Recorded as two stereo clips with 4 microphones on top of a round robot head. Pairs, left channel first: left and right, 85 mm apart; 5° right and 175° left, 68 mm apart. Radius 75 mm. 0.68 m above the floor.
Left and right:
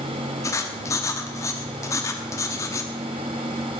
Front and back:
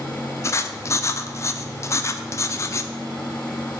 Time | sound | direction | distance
0.4 | writing | 40° left | 0.9 m